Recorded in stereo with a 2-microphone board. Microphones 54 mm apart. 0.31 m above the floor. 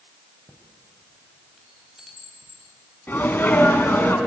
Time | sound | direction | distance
0.5 | a chime | 10° right (ahead or behind) | 2 m
3.1 | a sneeze | 35° left (ahead or behind) | 3 m